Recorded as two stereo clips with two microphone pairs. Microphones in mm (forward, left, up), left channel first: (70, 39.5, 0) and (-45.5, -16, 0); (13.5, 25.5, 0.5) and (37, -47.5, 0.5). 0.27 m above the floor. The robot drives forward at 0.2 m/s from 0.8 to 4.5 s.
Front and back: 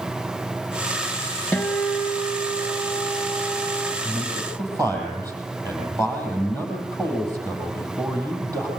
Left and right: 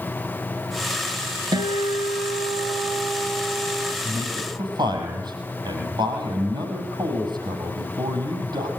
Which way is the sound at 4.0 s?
95° right.